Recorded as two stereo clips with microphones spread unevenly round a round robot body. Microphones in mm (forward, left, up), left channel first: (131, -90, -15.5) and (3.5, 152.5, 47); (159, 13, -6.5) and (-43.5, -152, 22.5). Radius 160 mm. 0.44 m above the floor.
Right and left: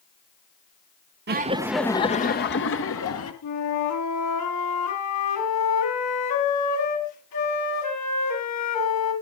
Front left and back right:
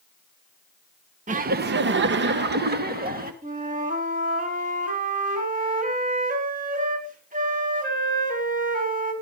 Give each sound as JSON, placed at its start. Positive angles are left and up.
{"t": 1.3, "sound": "laughter", "azimuth_deg": 165, "distance_m": 0.9}
{"t": 3.4, "sound": "a flute", "azimuth_deg": -80, "distance_m": 4.0}